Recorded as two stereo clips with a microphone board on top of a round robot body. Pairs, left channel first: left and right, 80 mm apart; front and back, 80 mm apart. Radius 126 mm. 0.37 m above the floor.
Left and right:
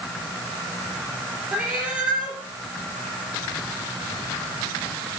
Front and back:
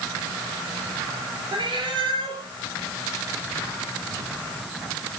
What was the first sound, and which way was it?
A cat meowing, 165° right.